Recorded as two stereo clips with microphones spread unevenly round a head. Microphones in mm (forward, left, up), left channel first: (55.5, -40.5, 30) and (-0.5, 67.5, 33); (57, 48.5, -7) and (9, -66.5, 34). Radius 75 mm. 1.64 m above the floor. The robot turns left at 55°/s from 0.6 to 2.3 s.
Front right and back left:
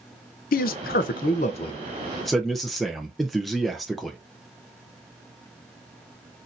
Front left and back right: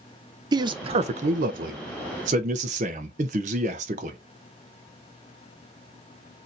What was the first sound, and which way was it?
A man speaking, 60° right.